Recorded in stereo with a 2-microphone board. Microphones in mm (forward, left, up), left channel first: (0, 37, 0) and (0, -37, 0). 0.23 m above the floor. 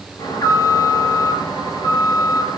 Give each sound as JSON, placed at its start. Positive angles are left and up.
{"t": 0.2, "sound": "an alarm", "side_deg": 60, "distance_m": 6.5}